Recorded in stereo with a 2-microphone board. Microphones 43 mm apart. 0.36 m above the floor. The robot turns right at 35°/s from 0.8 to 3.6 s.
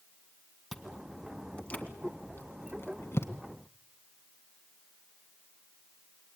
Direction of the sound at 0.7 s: 5° left (ahead or behind).